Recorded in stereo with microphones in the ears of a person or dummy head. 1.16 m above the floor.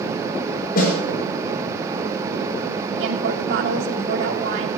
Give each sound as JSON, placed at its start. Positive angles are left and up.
{"t": 0.8, "sound": "a snare drum", "side_deg": 55, "distance_m": 4.5}
{"t": 3.0, "sound": "a woman speaking", "side_deg": -80, "distance_m": 2.5}